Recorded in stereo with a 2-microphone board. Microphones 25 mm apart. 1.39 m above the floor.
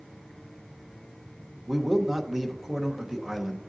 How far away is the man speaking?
About 1.1 m.